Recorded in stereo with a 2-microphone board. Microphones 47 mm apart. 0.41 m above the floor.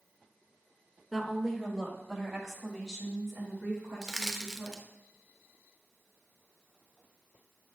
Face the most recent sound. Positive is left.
turn(degrees=0)  # may be behind; listen again after turning